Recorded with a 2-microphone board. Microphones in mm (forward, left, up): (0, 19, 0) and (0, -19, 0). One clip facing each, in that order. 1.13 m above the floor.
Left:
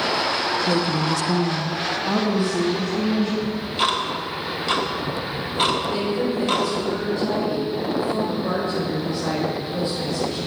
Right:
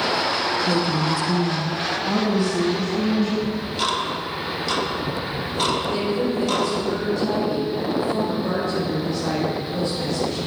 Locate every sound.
0.7 s a woman speaking: 30° left (ahead or behind), 1.0 m; by 3.3 s 20° left (ahead or behind), 3 m
3.4 s ticking: 35° left (ahead or behind), 1.9 m
5.9 s a woman speaking: 10° left (ahead or behind), 5 m